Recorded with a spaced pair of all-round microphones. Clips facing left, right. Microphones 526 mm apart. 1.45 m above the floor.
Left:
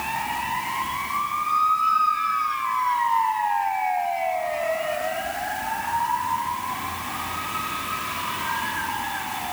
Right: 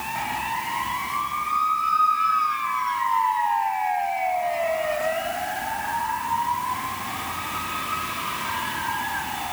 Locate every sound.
Only background noise.